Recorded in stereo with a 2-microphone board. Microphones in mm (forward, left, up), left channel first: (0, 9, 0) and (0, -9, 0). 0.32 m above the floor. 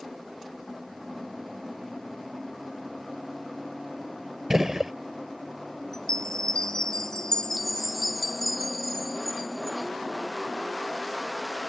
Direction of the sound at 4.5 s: 30° right (ahead or behind).